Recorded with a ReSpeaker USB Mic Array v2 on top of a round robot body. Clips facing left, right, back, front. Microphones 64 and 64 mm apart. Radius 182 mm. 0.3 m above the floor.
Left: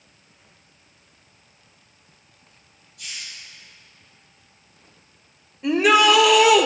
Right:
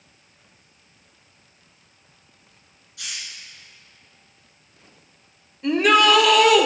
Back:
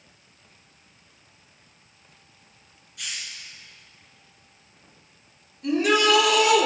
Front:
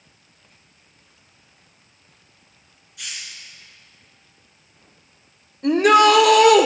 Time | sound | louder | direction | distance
3.0 | a hiss | right 1 dB, even | 90° right | 1.7 m
5.6 | a shout | even, front 7 dB | 5° left | 1.5 m